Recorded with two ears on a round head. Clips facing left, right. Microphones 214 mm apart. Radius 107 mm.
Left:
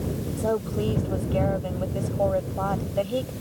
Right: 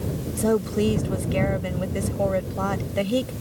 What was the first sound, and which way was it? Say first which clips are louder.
A woman speaking: right 6 dB; 35° right (ahead or behind).